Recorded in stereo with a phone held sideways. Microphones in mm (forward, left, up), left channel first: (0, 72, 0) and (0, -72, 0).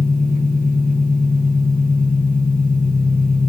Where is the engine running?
75° left (ahead or behind), 5 m.